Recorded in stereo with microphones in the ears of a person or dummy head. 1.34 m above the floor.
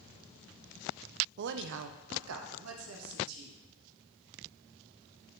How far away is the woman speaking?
About 0.5 m.